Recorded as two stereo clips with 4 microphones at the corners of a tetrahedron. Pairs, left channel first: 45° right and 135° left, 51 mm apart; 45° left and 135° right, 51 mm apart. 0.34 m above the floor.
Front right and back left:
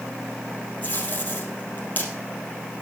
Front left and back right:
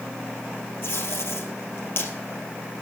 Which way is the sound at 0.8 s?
10° left.